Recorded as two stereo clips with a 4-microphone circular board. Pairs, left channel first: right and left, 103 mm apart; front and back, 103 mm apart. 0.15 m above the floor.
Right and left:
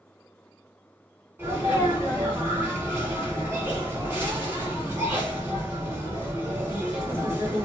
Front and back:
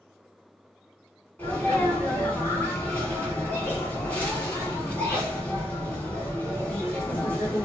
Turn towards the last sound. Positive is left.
turn(degrees=55)